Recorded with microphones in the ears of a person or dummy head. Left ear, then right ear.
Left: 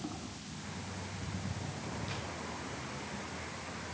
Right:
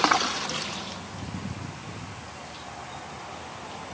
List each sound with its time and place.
Only background noise.